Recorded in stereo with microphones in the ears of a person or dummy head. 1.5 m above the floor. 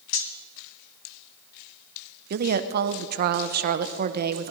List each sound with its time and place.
0.1 s cutlery clinking: 55° left (ahead or behind), 1.0 m
2.3 s a woman speaking: 50° right (ahead or behind), 0.8 m